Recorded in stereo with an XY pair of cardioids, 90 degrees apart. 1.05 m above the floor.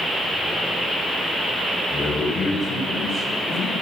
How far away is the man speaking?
About 4 m.